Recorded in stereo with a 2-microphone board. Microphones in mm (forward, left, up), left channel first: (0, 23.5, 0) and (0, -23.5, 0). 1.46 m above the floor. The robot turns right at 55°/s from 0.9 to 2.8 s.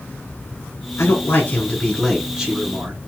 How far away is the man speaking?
About 1.2 m.